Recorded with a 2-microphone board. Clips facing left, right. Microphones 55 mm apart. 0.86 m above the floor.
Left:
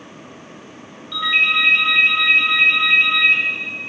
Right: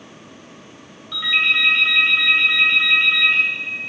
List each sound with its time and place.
1.1 s a ringtone: centre (ahead or behind), 1.7 m